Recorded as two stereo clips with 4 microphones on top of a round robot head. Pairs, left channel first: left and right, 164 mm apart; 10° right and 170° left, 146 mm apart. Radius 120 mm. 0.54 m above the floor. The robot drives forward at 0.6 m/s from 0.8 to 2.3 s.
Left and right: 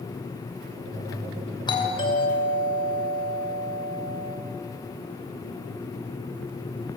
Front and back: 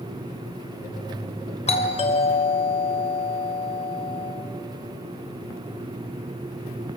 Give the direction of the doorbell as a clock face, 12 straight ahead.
11 o'clock.